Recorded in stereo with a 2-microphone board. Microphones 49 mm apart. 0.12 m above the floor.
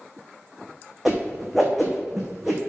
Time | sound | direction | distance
1.1 | a whoosh | 5° right (ahead or behind) | 1.5 m